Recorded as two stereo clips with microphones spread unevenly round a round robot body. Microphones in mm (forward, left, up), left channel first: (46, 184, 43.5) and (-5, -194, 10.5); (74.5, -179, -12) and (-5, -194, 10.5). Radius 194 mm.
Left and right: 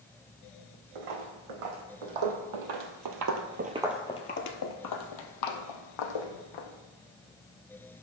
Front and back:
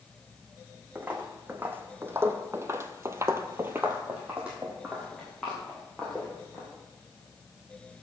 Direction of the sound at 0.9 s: 105° right.